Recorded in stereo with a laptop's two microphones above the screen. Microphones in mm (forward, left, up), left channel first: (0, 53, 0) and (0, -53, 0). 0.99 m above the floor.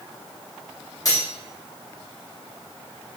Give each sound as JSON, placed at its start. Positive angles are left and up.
{"t": 1.1, "sound": "cutlery clinking", "side_deg": 35, "distance_m": 1.1}